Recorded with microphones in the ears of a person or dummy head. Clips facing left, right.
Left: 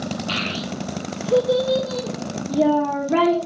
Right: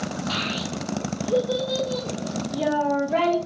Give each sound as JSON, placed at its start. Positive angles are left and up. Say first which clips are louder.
{"t": 0.3, "sound": "a child speaking", "louder": "left 2 dB", "side_deg": 45, "distance_m": 0.6}